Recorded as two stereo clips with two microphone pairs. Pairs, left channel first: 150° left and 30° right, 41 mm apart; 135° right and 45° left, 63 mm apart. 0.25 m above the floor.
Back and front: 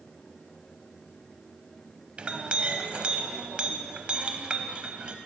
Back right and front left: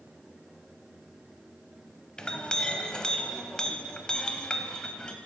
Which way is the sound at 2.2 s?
65° right.